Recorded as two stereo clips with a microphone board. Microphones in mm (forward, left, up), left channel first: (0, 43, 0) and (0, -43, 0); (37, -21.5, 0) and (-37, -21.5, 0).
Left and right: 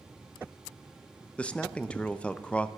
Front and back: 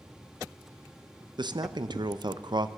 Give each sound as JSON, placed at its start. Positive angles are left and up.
{"t": 1.4, "sound": "a man speaking", "azimuth_deg": 165, "distance_m": 0.6}